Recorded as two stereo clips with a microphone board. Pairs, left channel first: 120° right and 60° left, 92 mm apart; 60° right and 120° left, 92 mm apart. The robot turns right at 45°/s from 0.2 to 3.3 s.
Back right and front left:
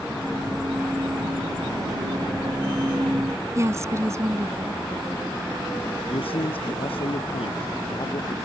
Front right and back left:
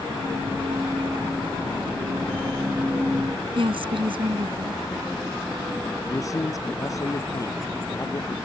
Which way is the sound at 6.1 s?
115° right.